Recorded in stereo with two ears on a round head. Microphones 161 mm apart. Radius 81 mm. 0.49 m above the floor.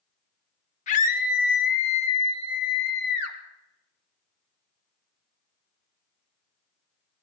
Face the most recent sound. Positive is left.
turn(degrees=65)  # may be behind; listen again after turning